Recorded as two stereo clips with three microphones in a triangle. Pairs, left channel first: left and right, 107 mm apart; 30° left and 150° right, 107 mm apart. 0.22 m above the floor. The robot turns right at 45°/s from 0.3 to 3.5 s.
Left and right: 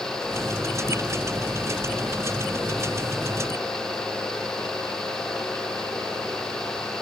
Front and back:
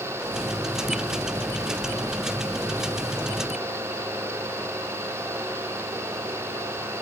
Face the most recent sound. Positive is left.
No sound to turn to.